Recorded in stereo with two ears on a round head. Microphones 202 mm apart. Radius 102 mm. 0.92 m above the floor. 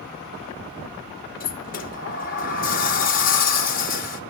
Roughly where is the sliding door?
Left.